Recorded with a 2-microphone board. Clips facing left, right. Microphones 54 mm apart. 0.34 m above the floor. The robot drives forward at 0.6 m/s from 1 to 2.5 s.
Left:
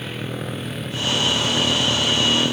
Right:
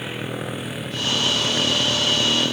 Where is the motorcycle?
10° right (ahead or behind); by 2.5 s 5° left (ahead or behind).